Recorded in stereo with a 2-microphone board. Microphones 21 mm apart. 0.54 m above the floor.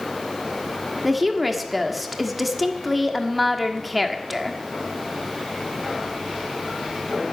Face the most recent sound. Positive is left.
turn(degrees=0)  # may be behind; listen again after turning